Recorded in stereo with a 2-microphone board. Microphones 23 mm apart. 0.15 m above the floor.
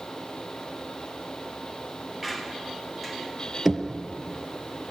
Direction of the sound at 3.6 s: 5° right (ahead or behind).